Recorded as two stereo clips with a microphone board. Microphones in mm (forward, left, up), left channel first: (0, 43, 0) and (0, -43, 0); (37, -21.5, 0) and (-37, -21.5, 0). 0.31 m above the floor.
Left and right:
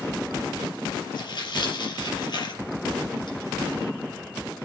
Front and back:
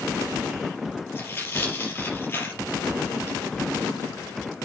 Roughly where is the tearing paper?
Ahead left.